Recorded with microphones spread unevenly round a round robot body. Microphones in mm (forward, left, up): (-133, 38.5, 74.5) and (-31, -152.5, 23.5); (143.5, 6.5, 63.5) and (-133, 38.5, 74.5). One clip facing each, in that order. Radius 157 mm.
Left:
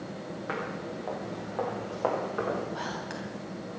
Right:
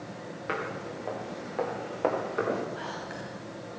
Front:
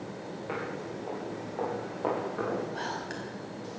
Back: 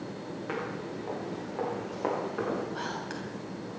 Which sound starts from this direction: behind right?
Footsteps, at 0.5 s.